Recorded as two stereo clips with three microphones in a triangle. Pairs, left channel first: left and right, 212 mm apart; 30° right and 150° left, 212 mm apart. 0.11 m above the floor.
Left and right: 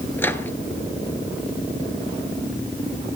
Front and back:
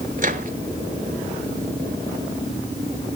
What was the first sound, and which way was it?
A microwave, 165° left.